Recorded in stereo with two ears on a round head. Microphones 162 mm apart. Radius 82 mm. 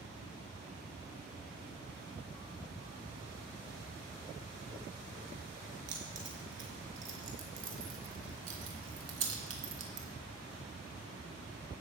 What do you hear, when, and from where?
5.9 s keys jangling: 65° right (ahead or behind), 4.5 m; by 10.1 s 70° right (ahead or behind), 3 m